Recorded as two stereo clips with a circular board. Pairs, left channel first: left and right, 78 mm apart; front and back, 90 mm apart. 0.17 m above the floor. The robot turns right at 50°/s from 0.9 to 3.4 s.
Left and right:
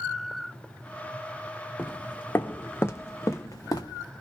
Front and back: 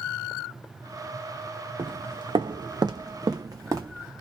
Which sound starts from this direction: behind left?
Footsteps, at 1.8 s.